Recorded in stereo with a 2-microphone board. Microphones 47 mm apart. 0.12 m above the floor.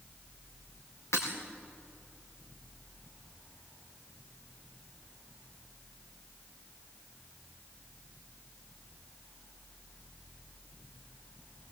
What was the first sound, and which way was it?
Breaking glass, 80° left.